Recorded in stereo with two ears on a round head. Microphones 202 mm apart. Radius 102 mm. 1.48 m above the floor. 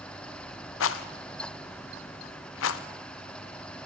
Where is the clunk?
I don't hear a clunk.